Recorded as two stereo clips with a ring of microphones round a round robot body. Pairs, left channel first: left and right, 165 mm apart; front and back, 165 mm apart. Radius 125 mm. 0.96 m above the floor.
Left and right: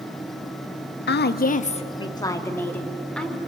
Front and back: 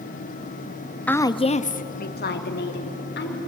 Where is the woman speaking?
80° left, 1.1 m; by 3.4 s 5° left, 3 m.